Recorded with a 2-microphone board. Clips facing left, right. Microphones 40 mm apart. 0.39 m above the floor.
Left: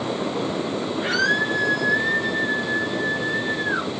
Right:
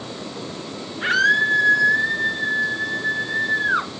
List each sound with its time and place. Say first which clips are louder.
1.0 s a scream: right 5 dB; 40° right (ahead or behind), 5 m; by 3.9 s 75° right (ahead or behind), 4 m